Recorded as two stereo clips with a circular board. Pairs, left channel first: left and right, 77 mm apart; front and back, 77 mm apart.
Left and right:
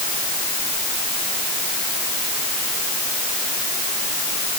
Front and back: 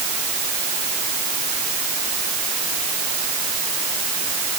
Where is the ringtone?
No ringtone in this recording.